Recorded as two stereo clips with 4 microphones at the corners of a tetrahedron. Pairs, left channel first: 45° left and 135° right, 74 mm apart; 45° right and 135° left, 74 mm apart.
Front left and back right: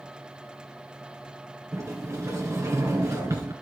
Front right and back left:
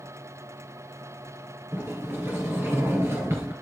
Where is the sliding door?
175° right, 2.5 m.